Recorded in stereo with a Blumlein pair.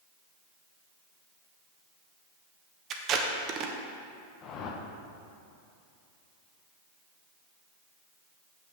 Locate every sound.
2.9 s tape being pulled: 30° right, 1.0 m
4.4 s a whoosh: 35° left, 1.1 m